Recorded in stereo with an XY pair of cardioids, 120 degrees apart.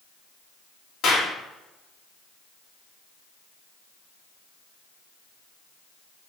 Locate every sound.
1.0 s a clap: 60° left, 2.5 m